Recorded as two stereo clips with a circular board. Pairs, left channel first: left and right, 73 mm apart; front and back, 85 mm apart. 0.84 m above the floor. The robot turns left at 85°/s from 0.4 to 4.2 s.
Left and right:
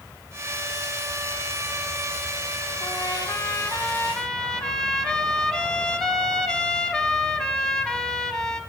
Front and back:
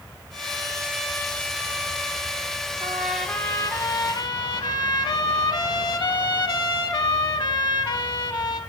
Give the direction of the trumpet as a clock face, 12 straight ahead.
8 o'clock.